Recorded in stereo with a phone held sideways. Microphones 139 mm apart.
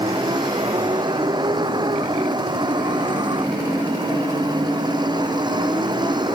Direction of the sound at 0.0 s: 30° right (ahead or behind).